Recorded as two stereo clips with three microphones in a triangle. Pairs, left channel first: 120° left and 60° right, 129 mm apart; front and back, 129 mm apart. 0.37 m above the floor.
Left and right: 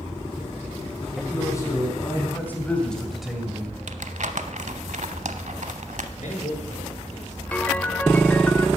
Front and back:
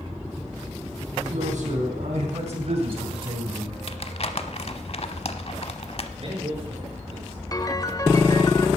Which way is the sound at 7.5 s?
45° left.